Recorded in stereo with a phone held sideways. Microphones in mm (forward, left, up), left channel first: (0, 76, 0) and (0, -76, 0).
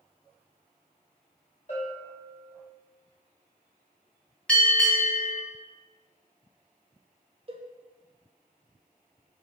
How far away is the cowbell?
About 0.9 m.